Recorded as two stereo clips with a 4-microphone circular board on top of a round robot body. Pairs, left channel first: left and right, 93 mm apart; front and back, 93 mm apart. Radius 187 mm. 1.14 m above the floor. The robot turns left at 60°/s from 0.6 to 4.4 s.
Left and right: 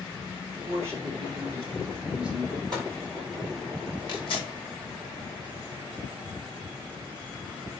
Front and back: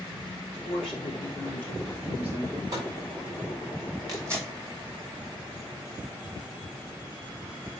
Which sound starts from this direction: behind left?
Tearing paper, at 4.1 s.